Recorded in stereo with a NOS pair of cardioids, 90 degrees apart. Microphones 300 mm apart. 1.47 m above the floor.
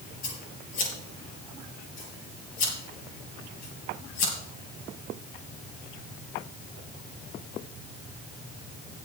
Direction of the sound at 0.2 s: 65° left.